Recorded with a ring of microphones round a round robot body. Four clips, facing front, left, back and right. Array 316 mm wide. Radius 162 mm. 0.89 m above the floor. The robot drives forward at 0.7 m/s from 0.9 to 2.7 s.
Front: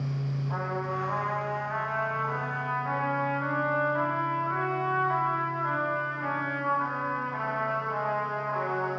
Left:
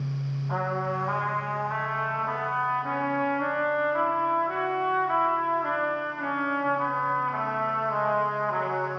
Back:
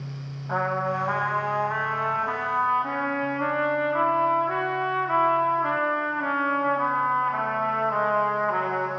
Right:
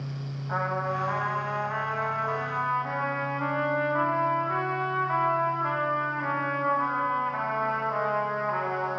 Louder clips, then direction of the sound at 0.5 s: Even, back 8 dB; 170° left.